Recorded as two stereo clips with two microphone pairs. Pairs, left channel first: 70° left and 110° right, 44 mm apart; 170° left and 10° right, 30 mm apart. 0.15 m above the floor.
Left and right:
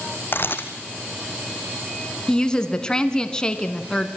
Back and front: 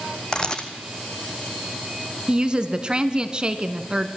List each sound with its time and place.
0.3 s a camera shutter: 110° left, 1.4 m
2.3 s a woman speaking: 10° left, 1.1 m